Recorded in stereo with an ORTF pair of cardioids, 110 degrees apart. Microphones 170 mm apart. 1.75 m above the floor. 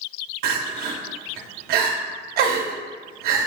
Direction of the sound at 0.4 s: 65° right.